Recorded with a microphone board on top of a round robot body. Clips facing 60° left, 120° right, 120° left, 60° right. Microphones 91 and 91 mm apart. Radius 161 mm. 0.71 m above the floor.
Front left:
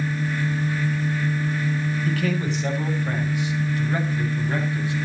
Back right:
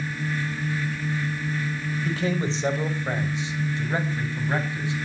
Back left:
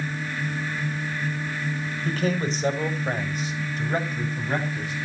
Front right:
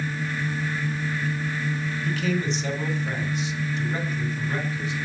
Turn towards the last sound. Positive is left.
turn(degrees=170)